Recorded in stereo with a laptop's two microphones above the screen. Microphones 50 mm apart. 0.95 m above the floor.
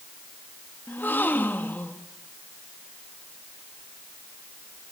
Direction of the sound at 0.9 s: 40° left (ahead or behind).